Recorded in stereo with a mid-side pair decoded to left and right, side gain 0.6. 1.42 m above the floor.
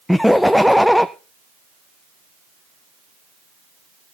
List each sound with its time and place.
0.1 s laughter: 5° left, 0.6 m